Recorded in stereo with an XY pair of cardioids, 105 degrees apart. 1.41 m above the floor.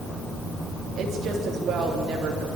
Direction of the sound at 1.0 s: 55° right.